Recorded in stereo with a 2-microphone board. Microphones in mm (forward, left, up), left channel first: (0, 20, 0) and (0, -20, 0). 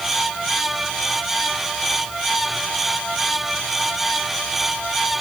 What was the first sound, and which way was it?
Only background noise.